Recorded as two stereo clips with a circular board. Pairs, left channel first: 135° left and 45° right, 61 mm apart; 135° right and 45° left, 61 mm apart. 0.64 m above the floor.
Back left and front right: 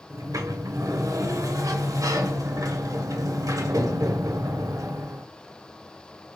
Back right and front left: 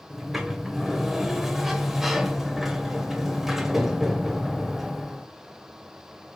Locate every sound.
0.1 s a sliding door: 40° right, 0.6 m